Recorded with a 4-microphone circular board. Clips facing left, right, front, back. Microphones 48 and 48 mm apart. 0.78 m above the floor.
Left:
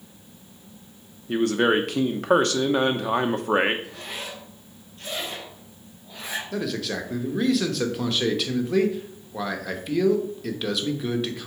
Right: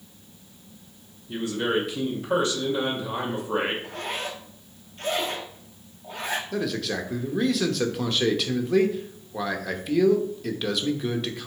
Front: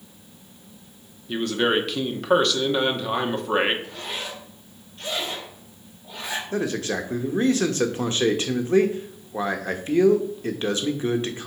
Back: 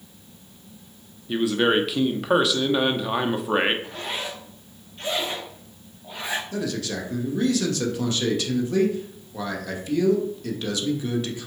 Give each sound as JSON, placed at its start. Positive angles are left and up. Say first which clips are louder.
{"t": 1.3, "sound": "a man speaking", "louder": "left 5 dB, back 2 dB", "azimuth_deg": 95, "distance_m": 1.0}
{"t": 3.8, "sound": "a zipper", "louder": "right 4 dB, back 2 dB", "azimuth_deg": -120, "distance_m": 1.7}
{"t": 6.5, "sound": "a man speaking", "louder": "even, front 3 dB", "azimuth_deg": 0, "distance_m": 1.0}